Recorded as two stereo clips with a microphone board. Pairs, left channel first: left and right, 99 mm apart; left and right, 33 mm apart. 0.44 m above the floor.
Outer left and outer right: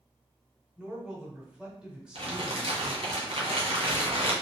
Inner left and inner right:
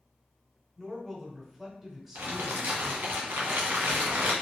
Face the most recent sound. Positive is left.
turn(degrees=-80)